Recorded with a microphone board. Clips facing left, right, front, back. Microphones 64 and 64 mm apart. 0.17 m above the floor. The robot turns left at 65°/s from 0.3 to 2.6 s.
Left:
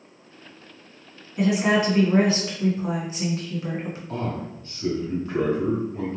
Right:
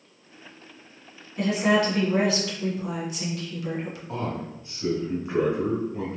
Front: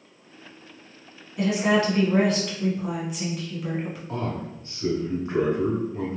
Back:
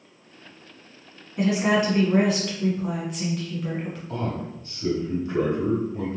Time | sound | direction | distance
1.4 | a woman speaking | 165° left | 1.2 m
4.1 | a man speaking | 25° right | 1.9 m